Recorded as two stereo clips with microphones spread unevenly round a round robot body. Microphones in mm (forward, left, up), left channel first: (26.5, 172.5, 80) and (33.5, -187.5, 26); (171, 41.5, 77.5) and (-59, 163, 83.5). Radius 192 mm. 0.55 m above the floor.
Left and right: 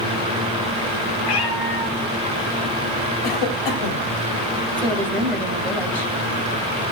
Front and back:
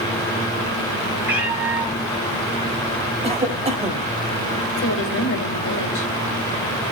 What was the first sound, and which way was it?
A cat meowing, 70° left.